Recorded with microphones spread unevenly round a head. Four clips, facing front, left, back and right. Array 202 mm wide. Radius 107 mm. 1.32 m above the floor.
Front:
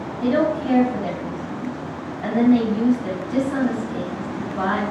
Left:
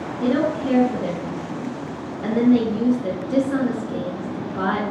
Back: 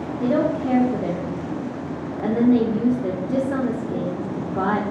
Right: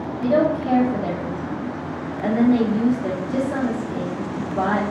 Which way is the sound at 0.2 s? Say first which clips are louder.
Right 2 dB, front 1 dB; 175° right.